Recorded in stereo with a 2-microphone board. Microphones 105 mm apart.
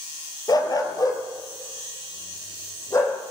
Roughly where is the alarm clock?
I don't hear an alarm clock.